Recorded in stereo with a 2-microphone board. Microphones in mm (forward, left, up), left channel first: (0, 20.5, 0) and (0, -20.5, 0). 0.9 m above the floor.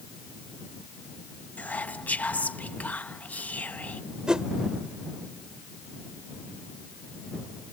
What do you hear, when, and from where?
1.6 s whispering: 35° left (ahead or behind)
4.3 s a whoosh: 20° right (ahead or behind)